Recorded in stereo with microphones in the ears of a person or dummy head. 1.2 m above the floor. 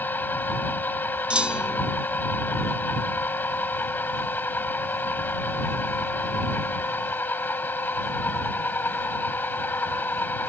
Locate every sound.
0.0 s a machine running: 15° left (ahead or behind)
1.3 s a clunk: 5° right (ahead or behind)